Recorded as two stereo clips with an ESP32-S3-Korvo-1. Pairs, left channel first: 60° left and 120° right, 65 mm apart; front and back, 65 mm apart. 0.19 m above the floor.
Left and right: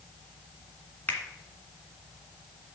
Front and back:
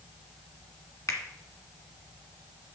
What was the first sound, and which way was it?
A finger snap, 5° left.